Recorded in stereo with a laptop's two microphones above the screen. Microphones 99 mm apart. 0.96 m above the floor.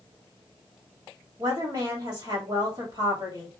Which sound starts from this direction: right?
A woman speaking, at 1.4 s.